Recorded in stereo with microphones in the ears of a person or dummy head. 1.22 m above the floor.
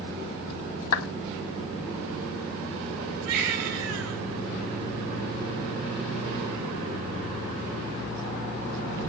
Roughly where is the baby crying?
Right.